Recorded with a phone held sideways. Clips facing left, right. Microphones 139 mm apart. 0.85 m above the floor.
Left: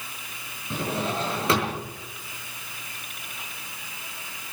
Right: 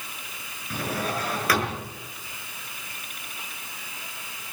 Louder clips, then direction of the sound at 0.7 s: Left 1 dB; 25° left (ahead or behind).